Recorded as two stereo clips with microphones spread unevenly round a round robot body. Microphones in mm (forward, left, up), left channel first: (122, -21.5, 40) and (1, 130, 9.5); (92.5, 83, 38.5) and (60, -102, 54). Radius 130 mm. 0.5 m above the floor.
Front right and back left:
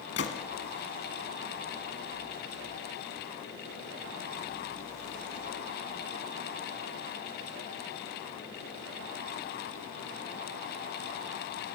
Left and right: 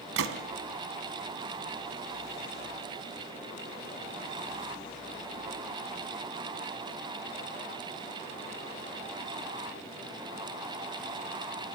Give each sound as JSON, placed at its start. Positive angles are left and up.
{"t": 0.2, "sound": "a gunshot", "azimuth_deg": -105, "distance_m": 1.5}